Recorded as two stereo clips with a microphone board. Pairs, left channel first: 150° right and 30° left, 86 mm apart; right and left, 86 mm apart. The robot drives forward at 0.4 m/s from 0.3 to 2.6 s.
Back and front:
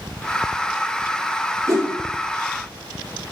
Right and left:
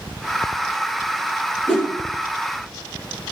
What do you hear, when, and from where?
1.7 s a whoosh: 20° right, 3.5 m